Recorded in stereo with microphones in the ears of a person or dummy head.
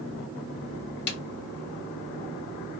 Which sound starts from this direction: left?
A snare drum, at 1.1 s.